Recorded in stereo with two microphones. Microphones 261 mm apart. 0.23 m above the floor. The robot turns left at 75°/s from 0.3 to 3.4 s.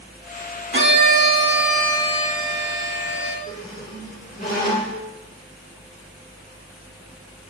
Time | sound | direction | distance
0.7 | a violin | 105° right | 0.8 m
3.5 | a squeak | 35° left (ahead or behind) | 2 m